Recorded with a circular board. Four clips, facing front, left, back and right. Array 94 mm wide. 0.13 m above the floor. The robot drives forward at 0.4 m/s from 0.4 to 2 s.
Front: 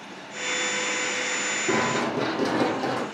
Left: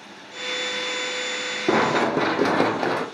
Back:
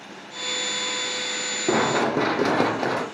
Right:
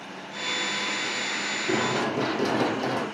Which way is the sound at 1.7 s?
110° left.